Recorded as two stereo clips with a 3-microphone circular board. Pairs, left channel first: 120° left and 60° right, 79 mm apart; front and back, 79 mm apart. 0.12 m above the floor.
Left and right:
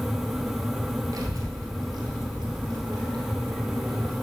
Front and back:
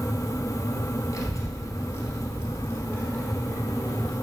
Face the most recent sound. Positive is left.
turn(degrees=-70)